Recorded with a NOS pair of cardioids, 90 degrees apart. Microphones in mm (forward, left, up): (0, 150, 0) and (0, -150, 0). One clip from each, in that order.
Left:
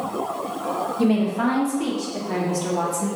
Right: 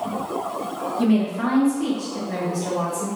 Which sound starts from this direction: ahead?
A woman speaking, at 1.0 s.